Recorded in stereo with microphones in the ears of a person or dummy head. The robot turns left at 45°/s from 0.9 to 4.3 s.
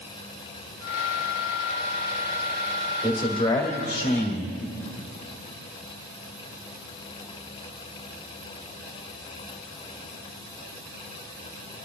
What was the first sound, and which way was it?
A man speaking, 170° right.